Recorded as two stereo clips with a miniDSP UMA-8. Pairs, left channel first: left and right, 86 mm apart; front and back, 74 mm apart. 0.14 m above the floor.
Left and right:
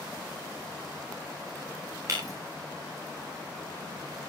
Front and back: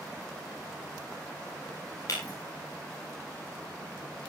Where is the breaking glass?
40° right, 7.5 m.